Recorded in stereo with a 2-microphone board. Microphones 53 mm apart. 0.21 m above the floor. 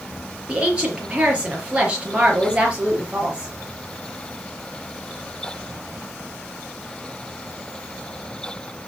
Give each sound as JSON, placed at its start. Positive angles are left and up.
{"t": 0.5, "sound": "a woman speaking", "side_deg": -20, "distance_m": 5.0}